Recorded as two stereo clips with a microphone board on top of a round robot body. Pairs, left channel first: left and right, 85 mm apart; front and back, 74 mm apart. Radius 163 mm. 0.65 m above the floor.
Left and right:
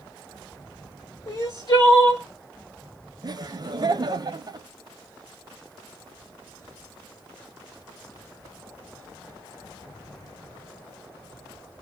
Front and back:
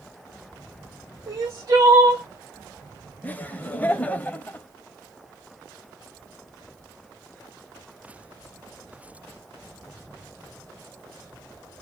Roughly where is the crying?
Behind left.